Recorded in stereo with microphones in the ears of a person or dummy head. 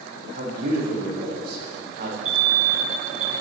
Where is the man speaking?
55° right (ahead or behind), 1.8 m.